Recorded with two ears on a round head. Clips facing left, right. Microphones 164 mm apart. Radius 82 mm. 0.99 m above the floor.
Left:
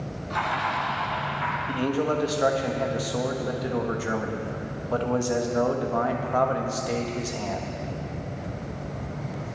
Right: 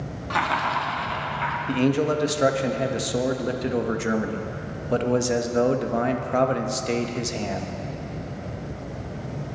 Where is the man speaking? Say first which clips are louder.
Right 4 dB; 25° right (ahead or behind), 0.9 m.